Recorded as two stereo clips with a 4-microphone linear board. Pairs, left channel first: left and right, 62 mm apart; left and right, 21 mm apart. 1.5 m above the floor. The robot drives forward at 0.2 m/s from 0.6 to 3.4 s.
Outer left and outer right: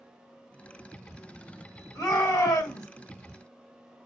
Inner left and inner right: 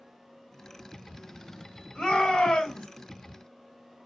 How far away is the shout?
About 1.4 m.